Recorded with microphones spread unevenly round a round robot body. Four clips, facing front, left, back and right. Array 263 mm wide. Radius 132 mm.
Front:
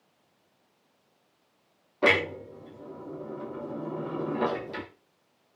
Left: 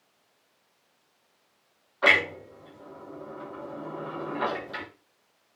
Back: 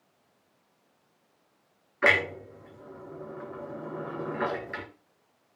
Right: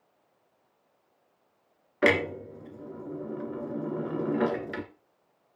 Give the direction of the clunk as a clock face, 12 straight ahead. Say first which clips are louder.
Even, front 1 dB; 2 o'clock.